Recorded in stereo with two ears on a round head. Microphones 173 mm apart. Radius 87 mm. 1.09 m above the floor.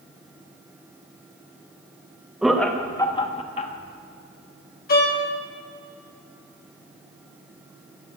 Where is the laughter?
5° right (ahead or behind), 1.1 m; by 3.7 s 40° left (ahead or behind), 1.5 m.